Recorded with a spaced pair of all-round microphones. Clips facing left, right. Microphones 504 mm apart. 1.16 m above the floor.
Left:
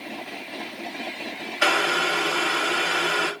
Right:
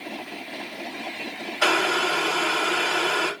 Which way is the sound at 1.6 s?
40° left (ahead or behind).